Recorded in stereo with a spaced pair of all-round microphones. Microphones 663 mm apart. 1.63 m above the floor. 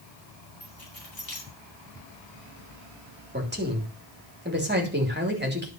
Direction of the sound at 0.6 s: 30° left (ahead or behind).